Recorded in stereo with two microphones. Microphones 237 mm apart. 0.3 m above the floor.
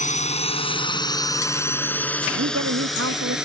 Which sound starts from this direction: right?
A woman speaking, at 2.3 s.